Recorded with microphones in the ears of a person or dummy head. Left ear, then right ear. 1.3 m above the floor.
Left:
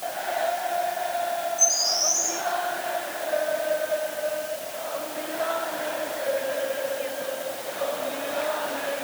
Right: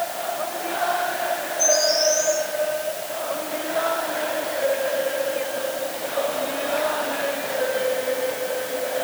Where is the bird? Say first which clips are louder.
Right 5 dB; 65° left (ahead or behind), 9 m.